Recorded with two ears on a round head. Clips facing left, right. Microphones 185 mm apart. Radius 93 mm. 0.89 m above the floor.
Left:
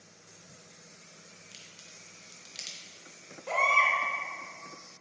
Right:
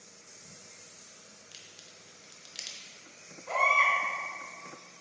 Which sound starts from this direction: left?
A baby crying, at 3.5 s.